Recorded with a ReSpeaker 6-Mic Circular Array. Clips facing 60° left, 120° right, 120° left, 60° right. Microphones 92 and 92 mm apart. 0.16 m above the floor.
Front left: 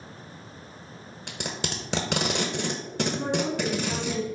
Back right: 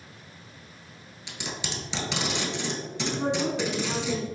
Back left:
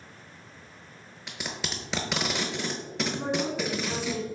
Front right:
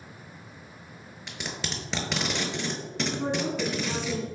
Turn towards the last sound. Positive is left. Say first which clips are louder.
# back right 3 dB, front right 1 dB
turn(degrees=-160)